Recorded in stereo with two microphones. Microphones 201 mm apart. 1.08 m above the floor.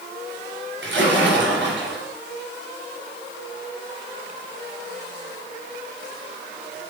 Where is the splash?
65° right (ahead or behind), 3.5 m.